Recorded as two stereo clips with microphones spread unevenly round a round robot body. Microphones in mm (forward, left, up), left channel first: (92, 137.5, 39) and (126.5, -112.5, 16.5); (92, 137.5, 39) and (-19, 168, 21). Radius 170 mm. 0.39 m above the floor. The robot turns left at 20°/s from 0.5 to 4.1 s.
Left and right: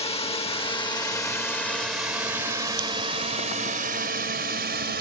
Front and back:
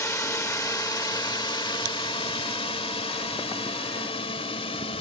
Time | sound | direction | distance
0.0 | a drone | 40° left | ?